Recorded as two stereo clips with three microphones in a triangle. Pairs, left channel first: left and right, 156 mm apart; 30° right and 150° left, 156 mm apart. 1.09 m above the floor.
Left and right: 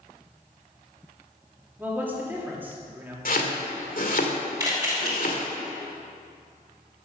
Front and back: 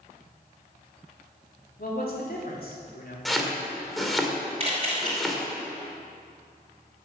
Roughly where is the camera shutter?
Behind.